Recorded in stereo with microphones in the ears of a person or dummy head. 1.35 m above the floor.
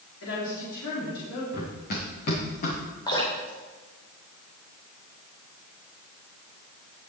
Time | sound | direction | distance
0.2 | a woman speaking | 75° left (ahead or behind) | 3.5 m
1.5 | running footsteps | 55° left (ahead or behind) | 4.5 m
3.1 | dripping | 20° left (ahead or behind) | 3.5 m